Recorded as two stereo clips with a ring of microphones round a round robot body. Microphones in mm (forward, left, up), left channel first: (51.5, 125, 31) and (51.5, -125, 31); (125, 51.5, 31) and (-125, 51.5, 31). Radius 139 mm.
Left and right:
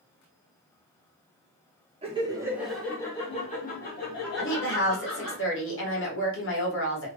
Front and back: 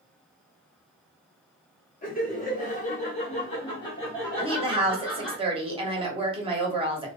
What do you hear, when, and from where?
2.0 s laughter: 35° right, 1.1 m; by 5.4 s 85° left, 1.7 m
4.4 s a woman speaking: 115° left, 1.3 m